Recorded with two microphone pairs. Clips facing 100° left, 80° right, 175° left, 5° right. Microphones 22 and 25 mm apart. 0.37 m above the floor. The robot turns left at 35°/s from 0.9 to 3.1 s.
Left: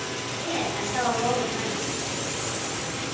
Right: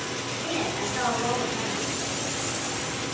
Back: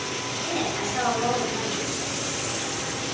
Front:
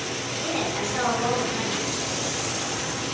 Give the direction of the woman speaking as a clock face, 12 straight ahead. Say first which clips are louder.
Left 1 dB, front 1 dB; 9 o'clock.